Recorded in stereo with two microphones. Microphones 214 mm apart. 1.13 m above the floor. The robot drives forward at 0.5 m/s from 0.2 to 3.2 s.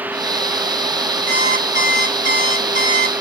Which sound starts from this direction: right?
An alarm clock, at 1.3 s.